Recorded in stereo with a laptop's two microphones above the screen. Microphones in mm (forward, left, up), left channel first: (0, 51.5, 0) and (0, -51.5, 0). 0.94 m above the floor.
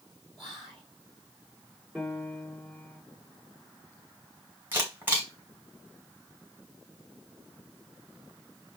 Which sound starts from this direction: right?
A camera shutter, at 4.7 s.